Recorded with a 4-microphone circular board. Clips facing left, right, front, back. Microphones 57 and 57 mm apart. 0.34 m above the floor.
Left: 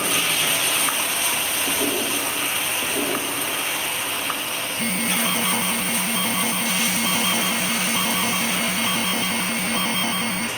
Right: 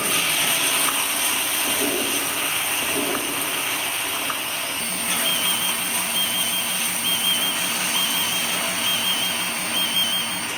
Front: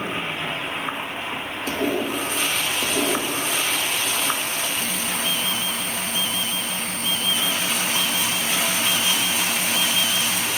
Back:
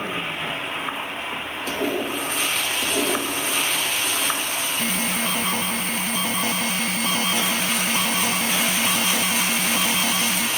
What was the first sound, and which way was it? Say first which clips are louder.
An alarm: left 6 dB, back 2 dB; 135° left.